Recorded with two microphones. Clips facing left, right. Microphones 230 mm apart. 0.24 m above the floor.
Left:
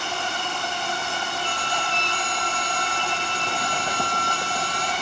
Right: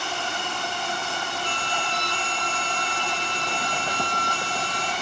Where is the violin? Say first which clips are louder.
Left 1 dB; 45° right (ahead or behind), 4 m.